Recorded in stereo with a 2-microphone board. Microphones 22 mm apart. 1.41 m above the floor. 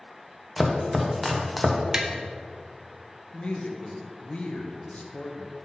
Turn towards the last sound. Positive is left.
turn(degrees=55)  # may be behind; listen again after turning